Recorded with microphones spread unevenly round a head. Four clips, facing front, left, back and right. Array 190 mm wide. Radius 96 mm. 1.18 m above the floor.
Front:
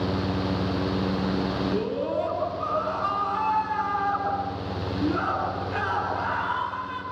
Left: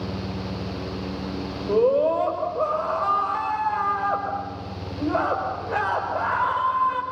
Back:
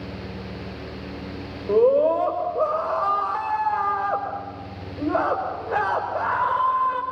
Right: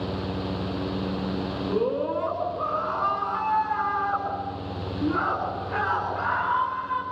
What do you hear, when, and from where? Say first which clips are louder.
1.7 s a scream: left 7 dB, back 10 dB; 140° left, 5 m